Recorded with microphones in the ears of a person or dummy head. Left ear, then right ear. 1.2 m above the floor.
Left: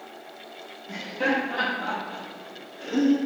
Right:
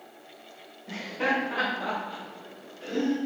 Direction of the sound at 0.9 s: 35° right (ahead or behind).